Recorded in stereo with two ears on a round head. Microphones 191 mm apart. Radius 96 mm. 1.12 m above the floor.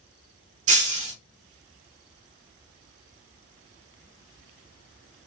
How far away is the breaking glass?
About 1.1 m.